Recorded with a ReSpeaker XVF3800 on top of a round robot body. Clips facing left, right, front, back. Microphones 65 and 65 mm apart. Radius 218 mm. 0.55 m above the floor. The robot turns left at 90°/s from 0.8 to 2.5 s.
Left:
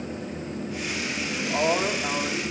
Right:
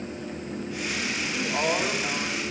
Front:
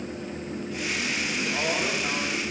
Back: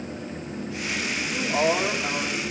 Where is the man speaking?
170° left, 3.5 m; by 2.4 s 65° left, 3.5 m.